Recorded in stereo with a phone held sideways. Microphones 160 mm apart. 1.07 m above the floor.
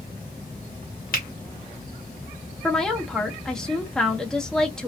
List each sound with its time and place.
1.1 s a finger snap: 60° left (ahead or behind), 0.9 m
2.6 s a woman speaking: 5° left (ahead or behind), 0.9 m